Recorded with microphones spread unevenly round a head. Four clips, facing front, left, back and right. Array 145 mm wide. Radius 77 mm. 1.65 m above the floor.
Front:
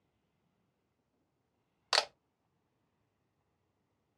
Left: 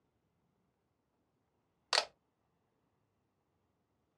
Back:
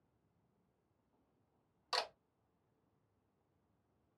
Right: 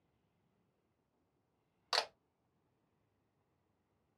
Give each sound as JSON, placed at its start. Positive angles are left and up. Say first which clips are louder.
{"t": 1.9, "sound": "a camera shutter", "louder": "left 2 dB, front 7 dB", "azimuth_deg": 25, "distance_m": 0.6}